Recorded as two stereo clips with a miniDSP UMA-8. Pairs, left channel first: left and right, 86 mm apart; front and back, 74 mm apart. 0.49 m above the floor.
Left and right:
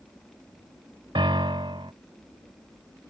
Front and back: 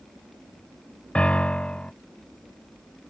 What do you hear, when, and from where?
1.1 s a piano: 75° right